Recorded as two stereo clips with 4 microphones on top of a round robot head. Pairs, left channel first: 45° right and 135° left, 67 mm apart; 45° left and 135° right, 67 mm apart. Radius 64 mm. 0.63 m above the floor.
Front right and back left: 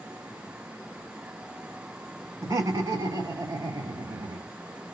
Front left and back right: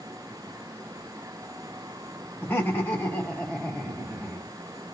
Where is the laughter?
95° left, 1.7 m; by 4.5 s 135° left, 1.5 m.